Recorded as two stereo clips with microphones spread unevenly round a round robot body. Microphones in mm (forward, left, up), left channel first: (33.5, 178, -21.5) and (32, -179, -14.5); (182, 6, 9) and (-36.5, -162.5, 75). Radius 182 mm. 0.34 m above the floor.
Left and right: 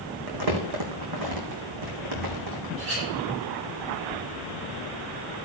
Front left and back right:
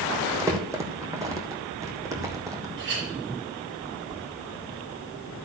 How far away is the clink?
About 7.5 m.